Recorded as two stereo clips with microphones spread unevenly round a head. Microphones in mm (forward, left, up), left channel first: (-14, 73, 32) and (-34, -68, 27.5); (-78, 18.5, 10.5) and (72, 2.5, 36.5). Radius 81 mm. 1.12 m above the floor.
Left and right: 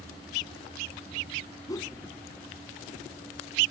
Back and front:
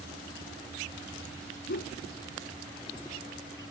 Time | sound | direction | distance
1.7 | a whoosh | 150° left | ?